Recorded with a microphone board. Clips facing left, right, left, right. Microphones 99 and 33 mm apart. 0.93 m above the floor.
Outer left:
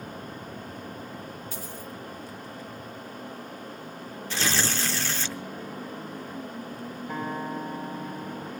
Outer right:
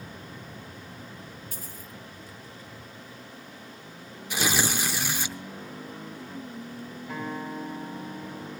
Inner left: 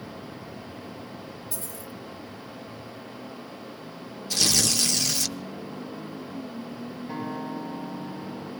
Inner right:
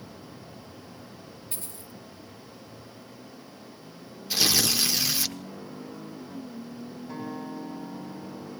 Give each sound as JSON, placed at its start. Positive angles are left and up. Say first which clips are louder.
{"t": 1.5, "sound": "a dropped coin", "louder": "outer left 6 dB, inner left 5 dB", "side_deg": -45, "distance_m": 2.5}
{"t": 4.3, "sound": "tearing paper", "louder": "outer right 1 dB, even", "side_deg": -15, "distance_m": 0.9}
{"t": 7.1, "sound": "a guitar", "louder": "outer left 2 dB, inner left 3 dB", "side_deg": 20, "distance_m": 6.5}